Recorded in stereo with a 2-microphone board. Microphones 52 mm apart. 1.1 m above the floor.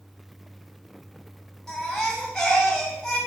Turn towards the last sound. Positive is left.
turn(degrees=15)  # may be behind; listen again after turning